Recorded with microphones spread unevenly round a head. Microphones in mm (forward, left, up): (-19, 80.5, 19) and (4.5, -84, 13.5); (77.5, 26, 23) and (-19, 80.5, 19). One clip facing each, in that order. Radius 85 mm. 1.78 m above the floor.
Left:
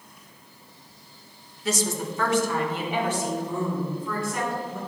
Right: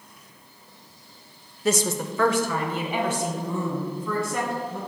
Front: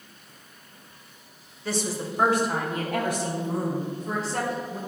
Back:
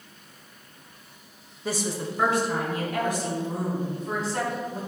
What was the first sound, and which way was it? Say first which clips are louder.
A woman speaking: right 3 dB, even; 130° right.